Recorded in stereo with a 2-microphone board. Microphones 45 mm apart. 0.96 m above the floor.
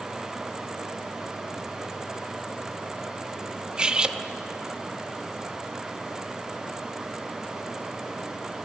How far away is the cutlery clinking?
About 0.8 m.